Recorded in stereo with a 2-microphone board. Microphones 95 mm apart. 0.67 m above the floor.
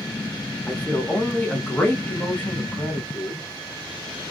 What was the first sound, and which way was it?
A man speaking, 15° left (ahead or behind).